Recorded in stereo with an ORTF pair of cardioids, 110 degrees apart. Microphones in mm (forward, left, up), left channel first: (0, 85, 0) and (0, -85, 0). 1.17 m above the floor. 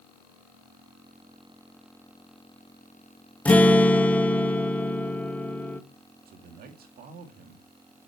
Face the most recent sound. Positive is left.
turn(degrees=-60)